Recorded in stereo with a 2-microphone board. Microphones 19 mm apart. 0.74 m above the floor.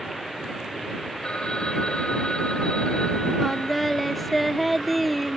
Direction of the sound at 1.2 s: 50° left (ahead or behind).